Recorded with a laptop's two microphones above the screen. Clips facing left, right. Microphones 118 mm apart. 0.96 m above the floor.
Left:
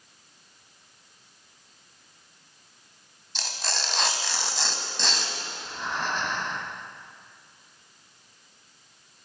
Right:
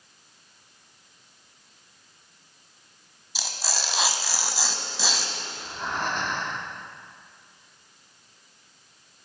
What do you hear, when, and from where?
3.4 s tearing paper: 5° right (ahead or behind), 1.0 m
5.5 s breathing: 50° right (ahead or behind), 2.0 m